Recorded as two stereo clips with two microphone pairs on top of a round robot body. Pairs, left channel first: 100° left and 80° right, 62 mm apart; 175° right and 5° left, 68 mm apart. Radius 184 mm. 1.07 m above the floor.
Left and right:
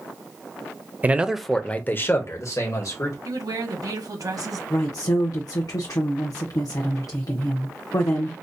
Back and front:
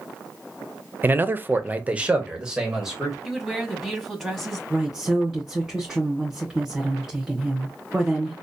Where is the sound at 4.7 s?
85° left, 0.8 m.